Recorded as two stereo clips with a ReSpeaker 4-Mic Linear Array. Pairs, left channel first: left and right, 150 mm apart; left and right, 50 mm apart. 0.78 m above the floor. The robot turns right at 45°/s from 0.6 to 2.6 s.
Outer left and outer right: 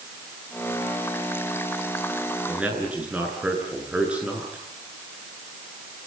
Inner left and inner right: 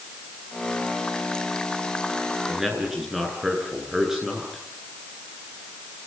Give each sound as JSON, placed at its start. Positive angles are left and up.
{"t": 2.5, "sound": "a man speaking", "side_deg": 0, "distance_m": 9.0}